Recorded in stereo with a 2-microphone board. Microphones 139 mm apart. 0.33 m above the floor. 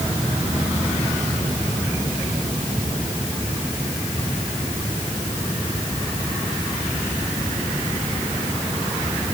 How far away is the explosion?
No explosion in this recording.